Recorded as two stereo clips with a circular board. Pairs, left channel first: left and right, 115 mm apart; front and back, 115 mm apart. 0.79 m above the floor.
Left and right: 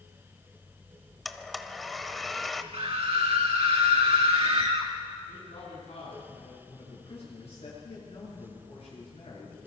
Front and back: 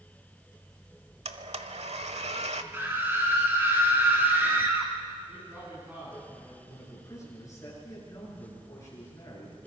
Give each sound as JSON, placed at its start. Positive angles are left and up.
{"t": 1.2, "sound": "a blender", "azimuth_deg": 180, "distance_m": 1.1}
{"t": 2.7, "sound": "a scream", "azimuth_deg": -110, "distance_m": 1.6}
{"t": 5.3, "sound": "a man speaking", "azimuth_deg": 110, "distance_m": 7.5}
{"t": 6.7, "sound": "a man speaking", "azimuth_deg": 60, "distance_m": 9.5}